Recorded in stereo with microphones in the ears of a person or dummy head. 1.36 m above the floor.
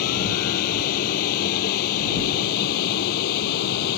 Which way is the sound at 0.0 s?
45° left (ahead or behind).